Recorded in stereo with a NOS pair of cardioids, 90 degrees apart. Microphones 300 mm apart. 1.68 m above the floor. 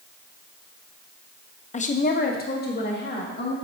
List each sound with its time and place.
1.7 s a woman speaking: 25° left, 0.6 m; by 3.5 s 35° left, 2.5 m